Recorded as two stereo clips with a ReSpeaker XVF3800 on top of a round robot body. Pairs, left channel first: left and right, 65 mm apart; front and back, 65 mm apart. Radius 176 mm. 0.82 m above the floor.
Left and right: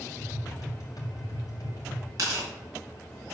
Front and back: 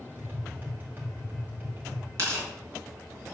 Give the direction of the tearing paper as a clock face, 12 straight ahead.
4 o'clock.